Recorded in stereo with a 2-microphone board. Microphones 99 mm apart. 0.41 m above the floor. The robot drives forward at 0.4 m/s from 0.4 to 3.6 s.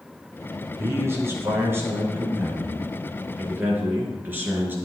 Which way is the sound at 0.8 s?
25° right (ahead or behind).